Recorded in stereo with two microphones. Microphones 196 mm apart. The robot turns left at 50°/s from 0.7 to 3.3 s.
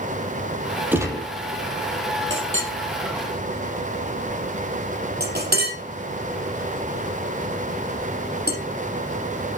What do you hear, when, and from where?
0.9 s a gunshot: 10° right (ahead or behind), 5 m; by 1.3 s 25° right (ahead or behind), 5 m
2.3 s a clink: 75° right (ahead or behind), 5.5 m; by 8.6 s 55° right (ahead or behind), 5.5 m